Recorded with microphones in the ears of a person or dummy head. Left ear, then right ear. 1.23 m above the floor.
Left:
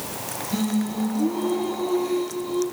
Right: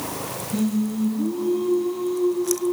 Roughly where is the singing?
Left.